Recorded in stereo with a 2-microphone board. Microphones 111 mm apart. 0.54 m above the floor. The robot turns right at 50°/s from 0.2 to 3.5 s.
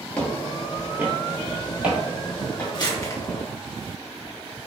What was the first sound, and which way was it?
Footsteps, 10° left (ahead or behind).